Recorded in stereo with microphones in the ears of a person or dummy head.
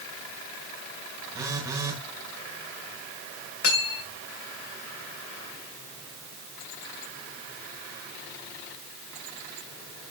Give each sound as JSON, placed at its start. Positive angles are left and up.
{"t": 1.3, "sound": "a phone buzzing", "side_deg": -15, "distance_m": 1.2}
{"t": 3.6, "sound": "cutlery clinking", "side_deg": 65, "distance_m": 3.0}